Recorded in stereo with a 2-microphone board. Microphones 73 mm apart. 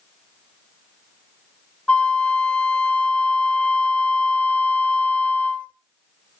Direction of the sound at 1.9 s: 15° left (ahead or behind).